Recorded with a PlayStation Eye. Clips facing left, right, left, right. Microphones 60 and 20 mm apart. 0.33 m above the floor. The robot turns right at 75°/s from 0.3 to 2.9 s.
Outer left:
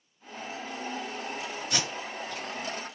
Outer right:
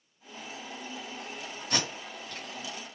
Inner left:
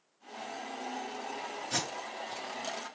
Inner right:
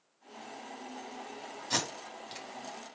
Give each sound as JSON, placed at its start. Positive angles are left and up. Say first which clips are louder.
{"t": 1.7, "sound": "tape being pulled", "louder": "outer right 2 dB, inner right 3 dB", "side_deg": -55, "distance_m": 2.5}